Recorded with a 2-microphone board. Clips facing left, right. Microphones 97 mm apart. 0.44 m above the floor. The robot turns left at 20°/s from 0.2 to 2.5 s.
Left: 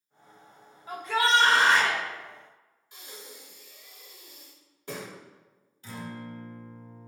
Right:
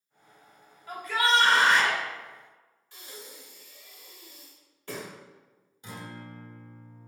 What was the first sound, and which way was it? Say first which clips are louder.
A shout: left 1 dB; 25° left (ahead or behind).